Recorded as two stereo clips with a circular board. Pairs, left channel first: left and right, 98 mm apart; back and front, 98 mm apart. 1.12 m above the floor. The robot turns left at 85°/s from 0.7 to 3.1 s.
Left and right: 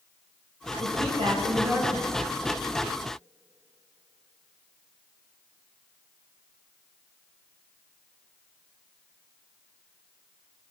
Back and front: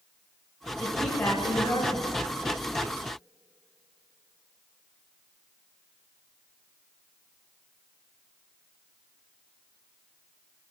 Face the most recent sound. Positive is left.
turn(degrees=95)